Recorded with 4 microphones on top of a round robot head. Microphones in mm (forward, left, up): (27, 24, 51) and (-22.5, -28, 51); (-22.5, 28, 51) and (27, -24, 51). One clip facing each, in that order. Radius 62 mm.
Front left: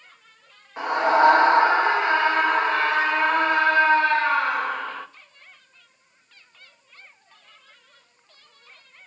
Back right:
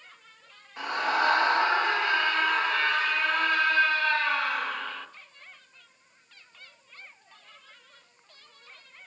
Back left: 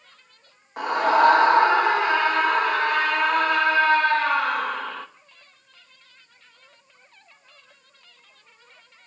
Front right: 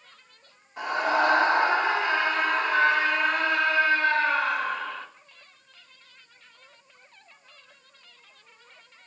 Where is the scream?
110° left, 2.5 m.